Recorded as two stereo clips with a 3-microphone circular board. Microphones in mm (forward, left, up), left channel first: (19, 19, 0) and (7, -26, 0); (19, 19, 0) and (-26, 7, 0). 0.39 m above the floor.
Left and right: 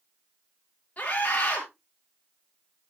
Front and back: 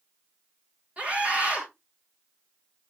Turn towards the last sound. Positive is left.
turn(degrees=135)